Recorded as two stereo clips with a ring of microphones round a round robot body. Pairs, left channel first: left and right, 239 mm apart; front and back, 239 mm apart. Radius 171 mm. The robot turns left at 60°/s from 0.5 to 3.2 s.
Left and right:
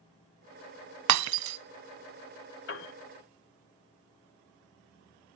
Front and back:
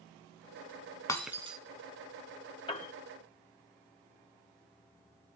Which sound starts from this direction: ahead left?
A piano, at 2.7 s.